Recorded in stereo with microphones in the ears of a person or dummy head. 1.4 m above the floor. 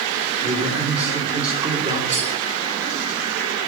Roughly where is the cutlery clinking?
Right.